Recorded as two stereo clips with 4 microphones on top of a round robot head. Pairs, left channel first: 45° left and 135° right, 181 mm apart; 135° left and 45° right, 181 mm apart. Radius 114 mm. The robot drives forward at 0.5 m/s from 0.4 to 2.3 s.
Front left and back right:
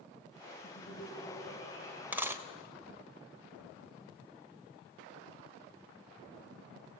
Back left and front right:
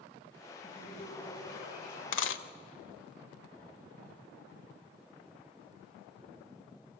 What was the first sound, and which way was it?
Laughter, 105° left.